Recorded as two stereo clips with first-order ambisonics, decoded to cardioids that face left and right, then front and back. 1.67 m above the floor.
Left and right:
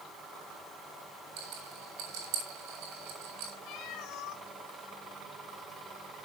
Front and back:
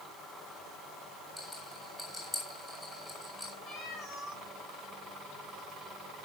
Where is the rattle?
80° right, 7 m.